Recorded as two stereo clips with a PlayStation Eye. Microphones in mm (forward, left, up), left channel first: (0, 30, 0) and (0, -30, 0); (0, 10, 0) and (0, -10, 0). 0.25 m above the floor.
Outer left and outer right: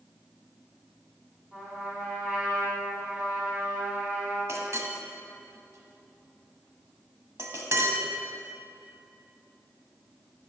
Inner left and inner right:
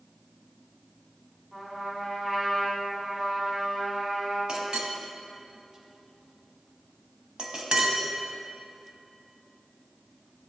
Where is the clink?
50° right (ahead or behind), 0.9 m.